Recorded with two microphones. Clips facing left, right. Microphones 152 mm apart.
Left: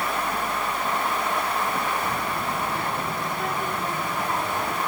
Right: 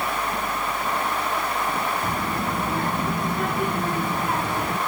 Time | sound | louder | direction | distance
2.0 | a child speaking | right 2 dB | 40° right (ahead or behind) | 4.5 m